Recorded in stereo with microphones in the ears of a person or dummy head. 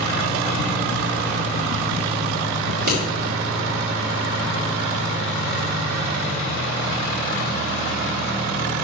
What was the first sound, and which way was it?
Scissors, 50° right (ahead or behind).